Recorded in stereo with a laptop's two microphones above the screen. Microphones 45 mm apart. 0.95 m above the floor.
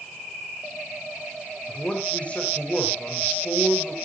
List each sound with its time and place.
1.7 s a man speaking: 30° left (ahead or behind), 4.5 m